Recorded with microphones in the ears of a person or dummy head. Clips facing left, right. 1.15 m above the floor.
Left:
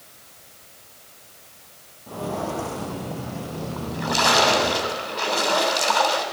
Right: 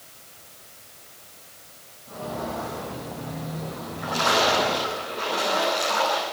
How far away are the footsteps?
About 6 m.